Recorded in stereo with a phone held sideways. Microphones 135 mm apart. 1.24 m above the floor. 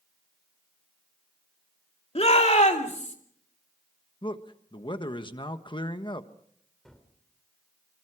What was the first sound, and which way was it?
A shout, 50° left (ahead or behind).